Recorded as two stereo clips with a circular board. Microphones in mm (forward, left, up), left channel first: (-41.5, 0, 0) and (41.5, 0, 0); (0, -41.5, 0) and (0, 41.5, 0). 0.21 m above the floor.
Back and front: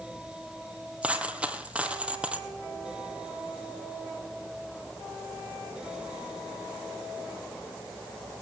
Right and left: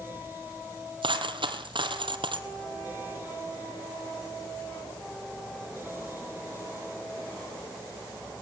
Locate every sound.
1.0 s a dropped coin: 75° left, 2.5 m